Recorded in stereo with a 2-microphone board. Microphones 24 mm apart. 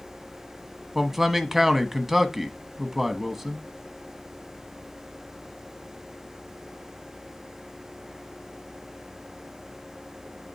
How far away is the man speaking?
About 1.1 m.